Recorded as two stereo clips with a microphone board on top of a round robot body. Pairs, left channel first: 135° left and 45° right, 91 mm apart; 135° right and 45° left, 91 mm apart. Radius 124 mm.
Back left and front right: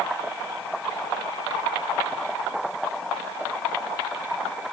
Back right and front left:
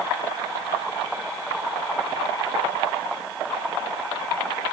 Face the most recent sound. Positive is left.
No sound to turn to.